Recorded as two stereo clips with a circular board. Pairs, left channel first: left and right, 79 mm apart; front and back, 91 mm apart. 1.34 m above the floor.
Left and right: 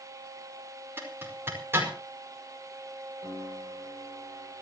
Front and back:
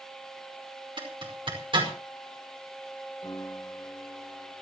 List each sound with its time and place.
1.0 s a zipper: 150° right, 5 m
3.2 s a piano: 40° left, 6 m